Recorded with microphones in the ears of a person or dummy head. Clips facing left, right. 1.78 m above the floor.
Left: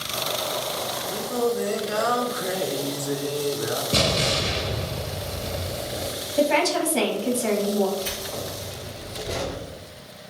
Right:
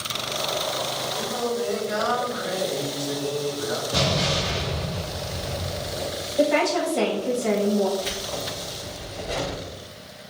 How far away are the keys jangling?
About 1.4 m.